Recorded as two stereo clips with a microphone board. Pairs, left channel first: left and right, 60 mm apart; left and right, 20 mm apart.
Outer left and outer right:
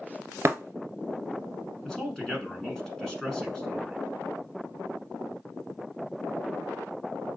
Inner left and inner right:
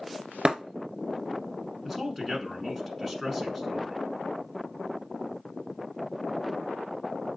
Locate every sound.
0.5 s breaking glass: 50° right (ahead or behind), 0.8 m
1.9 s a man speaking: 10° left (ahead or behind), 1.1 m